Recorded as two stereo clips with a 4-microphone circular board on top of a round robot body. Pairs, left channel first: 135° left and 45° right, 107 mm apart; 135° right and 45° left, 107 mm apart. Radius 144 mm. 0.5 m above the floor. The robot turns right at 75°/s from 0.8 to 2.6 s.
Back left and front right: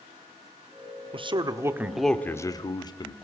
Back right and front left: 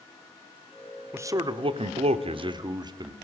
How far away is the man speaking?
About 1.4 m.